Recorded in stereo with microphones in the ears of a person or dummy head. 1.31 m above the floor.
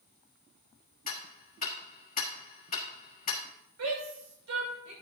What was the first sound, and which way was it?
Ticking, 35° left (ahead or behind).